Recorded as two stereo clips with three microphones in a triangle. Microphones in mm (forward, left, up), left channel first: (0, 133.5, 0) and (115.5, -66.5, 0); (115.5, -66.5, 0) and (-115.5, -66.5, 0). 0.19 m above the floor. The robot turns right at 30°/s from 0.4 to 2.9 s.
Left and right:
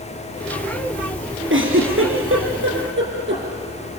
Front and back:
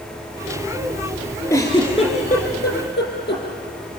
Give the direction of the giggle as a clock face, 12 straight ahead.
2 o'clock.